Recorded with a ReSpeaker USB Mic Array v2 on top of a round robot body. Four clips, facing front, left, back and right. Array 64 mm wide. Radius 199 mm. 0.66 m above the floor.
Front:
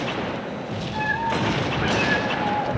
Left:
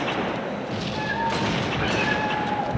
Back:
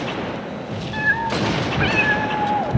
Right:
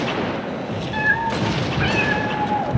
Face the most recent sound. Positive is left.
turn(degrees=-170)